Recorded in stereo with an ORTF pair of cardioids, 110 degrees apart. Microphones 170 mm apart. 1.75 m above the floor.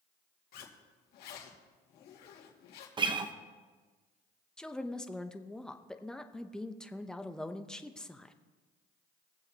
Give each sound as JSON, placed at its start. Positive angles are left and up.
{"t": 0.5, "sound": "a zipper", "azimuth_deg": 70, "distance_m": 2.5}
{"t": 3.0, "sound": "a guitar", "azimuth_deg": -30, "distance_m": 1.1}
{"t": 4.6, "sound": "a woman speaking", "azimuth_deg": 5, "distance_m": 0.8}